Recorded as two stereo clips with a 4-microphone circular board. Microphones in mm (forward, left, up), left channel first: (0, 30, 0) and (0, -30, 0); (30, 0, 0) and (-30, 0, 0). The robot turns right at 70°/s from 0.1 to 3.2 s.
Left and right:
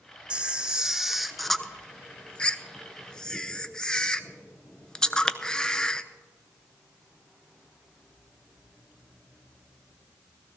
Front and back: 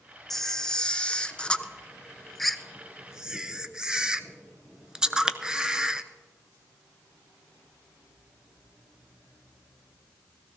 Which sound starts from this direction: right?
A camera shutter, at 0.3 s.